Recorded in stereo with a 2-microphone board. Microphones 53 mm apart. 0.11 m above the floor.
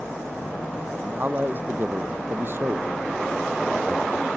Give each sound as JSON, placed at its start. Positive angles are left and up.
{"t": 1.0, "sound": "a man speaking", "side_deg": -35}